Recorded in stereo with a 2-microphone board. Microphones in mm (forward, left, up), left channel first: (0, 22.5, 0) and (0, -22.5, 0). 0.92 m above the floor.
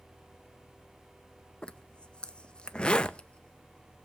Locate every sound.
1.6 s a zipper: 20° left (ahead or behind), 0.6 m